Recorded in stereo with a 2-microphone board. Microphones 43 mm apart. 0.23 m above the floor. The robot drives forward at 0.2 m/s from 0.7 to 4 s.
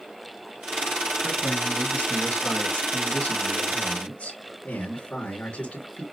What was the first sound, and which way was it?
A man speaking, 35° left (ahead or behind).